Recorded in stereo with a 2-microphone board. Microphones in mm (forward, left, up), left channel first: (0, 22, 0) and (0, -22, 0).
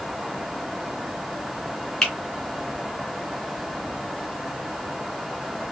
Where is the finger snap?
15° left (ahead or behind), 1.6 m.